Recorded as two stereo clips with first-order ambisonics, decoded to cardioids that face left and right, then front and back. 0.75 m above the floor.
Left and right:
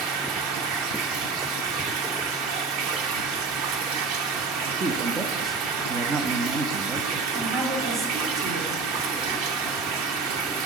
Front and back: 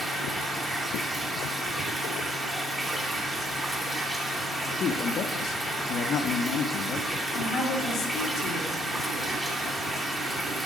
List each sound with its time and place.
0.0 s running water: 100° right, 1.0 m
4.7 s a man speaking: 35° right, 0.6 m
7.3 s a woman speaking: 55° right, 2 m